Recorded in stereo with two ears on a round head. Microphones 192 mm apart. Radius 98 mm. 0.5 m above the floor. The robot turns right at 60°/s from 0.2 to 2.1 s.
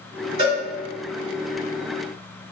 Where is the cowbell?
25° right (ahead or behind), 1.7 m; by 0.6 s 35° right (ahead or behind), 1.7 m.